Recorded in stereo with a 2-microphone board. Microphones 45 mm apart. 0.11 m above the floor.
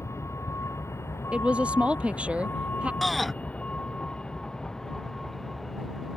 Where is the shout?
Centre (ahead or behind).